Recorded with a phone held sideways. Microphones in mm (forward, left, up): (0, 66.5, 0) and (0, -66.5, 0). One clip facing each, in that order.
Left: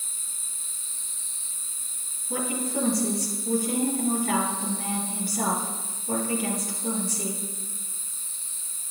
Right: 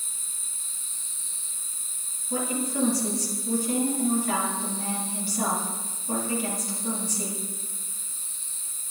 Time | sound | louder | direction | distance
2.3 | a woman speaking | even | 50° left (ahead or behind) | 4.5 m